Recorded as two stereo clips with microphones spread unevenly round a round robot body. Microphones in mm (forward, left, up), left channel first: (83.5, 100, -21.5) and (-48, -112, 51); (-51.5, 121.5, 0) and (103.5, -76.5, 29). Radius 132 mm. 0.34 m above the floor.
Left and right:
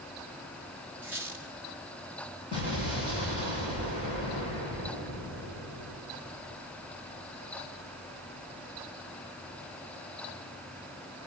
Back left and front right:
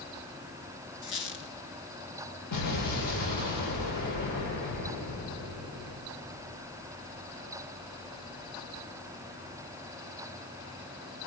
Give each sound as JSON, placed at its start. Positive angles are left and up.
{"t": 1.0, "sound": "a squeak", "azimuth_deg": 150, "distance_m": 1.7}
{"t": 2.5, "sound": "an explosion", "azimuth_deg": 130, "distance_m": 9.0}